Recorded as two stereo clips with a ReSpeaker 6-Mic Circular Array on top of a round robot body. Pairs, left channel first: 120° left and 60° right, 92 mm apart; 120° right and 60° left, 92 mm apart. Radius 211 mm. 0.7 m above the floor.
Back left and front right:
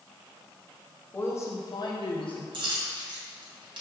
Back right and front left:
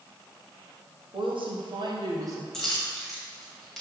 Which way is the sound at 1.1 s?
55° left.